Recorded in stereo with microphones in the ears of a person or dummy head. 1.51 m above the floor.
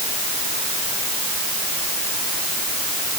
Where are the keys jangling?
I don't hear keys jangling.